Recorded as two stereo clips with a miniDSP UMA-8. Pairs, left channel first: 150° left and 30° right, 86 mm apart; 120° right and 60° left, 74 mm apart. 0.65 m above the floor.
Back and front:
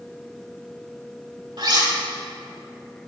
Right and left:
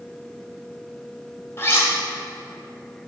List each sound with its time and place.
1.6 s cutlery clinking: 65° right, 1.6 m